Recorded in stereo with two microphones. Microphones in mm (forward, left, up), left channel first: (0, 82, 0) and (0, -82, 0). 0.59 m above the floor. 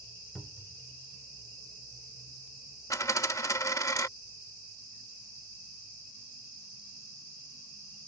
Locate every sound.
0.3 s a cupboard door: centre (ahead or behind)
2.9 s a dropped coin: 20° left (ahead or behind)